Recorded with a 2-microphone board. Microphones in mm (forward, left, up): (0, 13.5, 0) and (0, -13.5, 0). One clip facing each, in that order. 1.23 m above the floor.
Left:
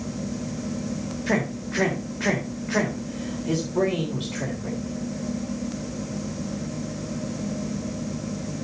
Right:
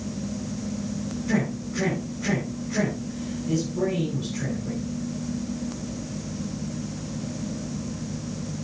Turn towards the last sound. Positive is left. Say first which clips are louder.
# left 1 dB
turn(degrees=85)